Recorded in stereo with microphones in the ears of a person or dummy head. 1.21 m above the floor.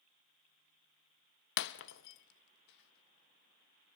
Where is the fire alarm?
No fire alarm in this recording.